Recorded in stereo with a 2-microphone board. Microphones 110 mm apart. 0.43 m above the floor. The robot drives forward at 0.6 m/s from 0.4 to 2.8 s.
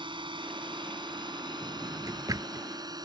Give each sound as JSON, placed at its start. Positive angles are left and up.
{"t": 0.0, "sound": "a drone", "side_deg": -50}
{"t": 1.6, "sound": "a drawer", "side_deg": -30}